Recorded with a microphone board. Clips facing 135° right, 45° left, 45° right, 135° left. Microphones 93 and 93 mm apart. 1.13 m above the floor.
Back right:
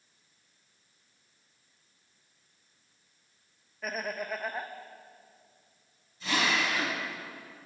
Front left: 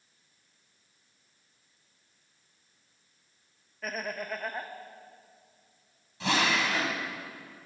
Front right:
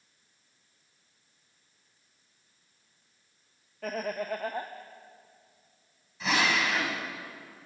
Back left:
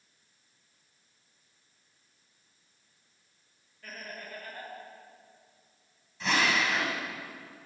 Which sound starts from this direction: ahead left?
A drill, at 6.2 s.